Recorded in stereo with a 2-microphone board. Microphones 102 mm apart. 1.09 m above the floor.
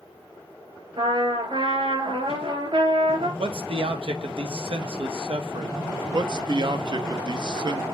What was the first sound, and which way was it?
A trumpet, 60° right (ahead or behind).